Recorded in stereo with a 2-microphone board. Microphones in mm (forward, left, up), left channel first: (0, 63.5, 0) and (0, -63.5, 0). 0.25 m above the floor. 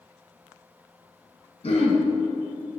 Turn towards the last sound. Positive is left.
turn(degrees=50)  # may be behind; listen again after turning